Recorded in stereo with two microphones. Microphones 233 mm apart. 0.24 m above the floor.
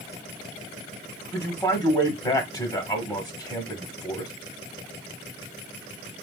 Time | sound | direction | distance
1.3 | a man speaking | 15° left (ahead or behind) | 1.1 m